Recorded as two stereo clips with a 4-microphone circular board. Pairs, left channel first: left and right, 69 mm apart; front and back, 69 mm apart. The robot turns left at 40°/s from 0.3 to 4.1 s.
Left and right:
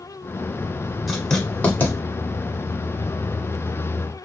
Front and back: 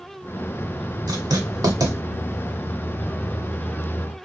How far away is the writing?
About 1.3 m.